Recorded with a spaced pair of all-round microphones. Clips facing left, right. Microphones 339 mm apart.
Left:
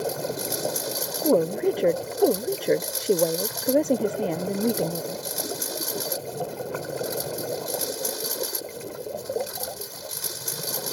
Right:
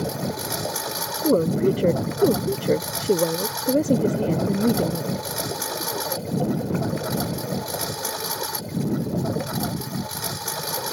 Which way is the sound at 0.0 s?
75° right (ahead or behind).